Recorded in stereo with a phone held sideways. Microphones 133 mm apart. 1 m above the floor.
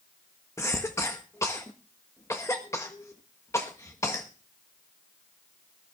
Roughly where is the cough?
Left.